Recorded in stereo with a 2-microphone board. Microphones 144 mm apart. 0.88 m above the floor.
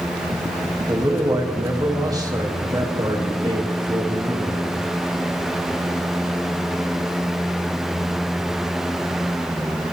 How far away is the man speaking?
About 1.1 m.